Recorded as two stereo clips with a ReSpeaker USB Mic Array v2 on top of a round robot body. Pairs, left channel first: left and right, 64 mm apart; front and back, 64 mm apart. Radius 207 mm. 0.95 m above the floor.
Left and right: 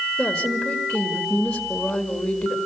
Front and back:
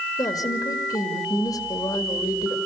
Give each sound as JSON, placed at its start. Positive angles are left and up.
{"t": 0.2, "sound": "a woman speaking", "azimuth_deg": 10, "distance_m": 2.0}